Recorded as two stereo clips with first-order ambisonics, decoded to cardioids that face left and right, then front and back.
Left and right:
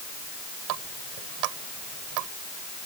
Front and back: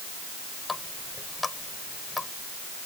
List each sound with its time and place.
0.7 s a running tap: 75° right